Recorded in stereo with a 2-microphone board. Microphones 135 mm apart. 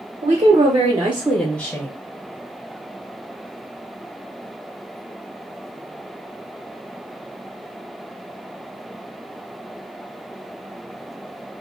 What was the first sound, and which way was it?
A woman speaking, 55° right (ahead or behind).